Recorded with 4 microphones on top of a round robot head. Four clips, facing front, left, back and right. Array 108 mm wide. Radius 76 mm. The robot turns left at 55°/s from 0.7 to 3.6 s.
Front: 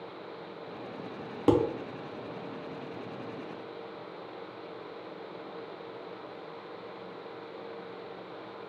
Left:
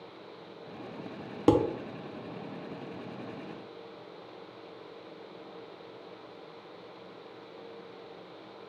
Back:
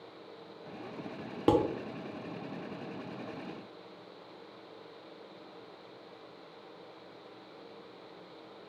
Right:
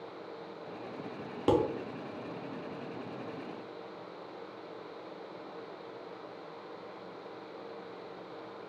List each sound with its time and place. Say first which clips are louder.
1.5 s dishes clattering: left 4 dB, front 2 dB; 95° left, 0.7 m; by 1.6 s 85° left, 0.7 m